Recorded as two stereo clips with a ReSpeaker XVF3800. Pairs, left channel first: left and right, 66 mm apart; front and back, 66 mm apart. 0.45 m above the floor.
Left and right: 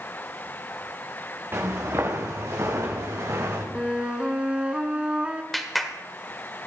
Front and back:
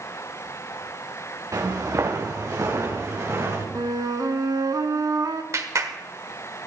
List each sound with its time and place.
1.5 s footsteps: 140° right, 2.5 m; by 3.6 s 130° right, 4.5 m
3.8 s a flute: 165° right, 1.0 m
5.5 s a clap: straight behind, 1.4 m